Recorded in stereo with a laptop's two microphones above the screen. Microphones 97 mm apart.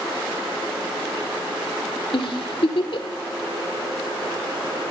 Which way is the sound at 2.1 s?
70° left (ahead or behind).